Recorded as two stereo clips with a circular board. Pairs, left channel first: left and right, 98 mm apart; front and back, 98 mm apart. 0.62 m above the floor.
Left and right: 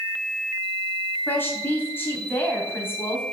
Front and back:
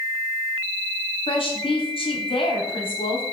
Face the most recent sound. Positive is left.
turn(degrees=20)